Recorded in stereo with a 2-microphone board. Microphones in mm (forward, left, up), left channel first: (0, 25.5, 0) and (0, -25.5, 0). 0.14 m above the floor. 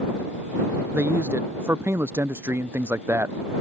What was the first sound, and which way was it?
A man speaking, 55° right (ahead or behind).